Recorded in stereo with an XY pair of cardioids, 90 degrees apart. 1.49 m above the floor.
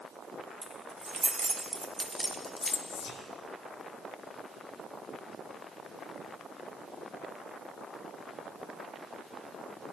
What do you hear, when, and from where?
0.6 s keys jangling: 55° right, 1.5 m; by 2.8 s 50° left, 0.6 m
2.9 s whispering: 70° left, 0.5 m